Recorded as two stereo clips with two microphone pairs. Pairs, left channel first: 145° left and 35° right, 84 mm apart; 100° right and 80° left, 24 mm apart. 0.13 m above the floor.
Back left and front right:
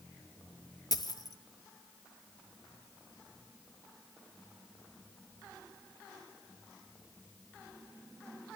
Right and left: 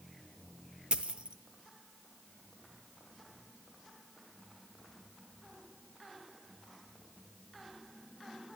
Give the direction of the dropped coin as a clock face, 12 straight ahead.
8 o'clock.